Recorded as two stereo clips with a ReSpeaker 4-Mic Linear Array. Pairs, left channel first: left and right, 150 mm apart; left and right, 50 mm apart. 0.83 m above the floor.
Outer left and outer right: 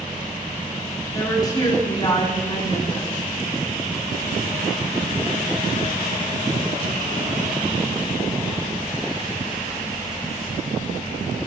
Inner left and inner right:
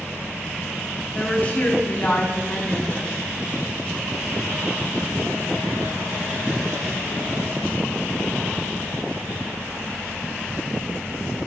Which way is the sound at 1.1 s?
25° left (ahead or behind).